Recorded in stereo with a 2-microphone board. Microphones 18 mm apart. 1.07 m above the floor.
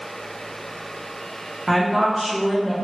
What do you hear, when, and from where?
1.7 s a woman speaking: 15° left (ahead or behind), 0.8 m